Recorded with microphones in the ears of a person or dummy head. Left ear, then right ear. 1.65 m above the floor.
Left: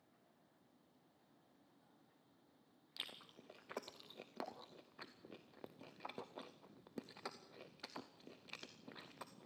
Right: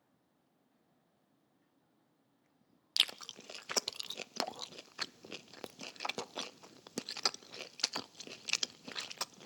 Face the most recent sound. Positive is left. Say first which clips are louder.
# right 18 dB
turn(degrees=-75)  # may be behind; listen again after turning